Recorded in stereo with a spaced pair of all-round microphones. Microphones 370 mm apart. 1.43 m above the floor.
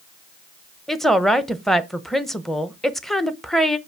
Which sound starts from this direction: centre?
A woman speaking, at 0.9 s.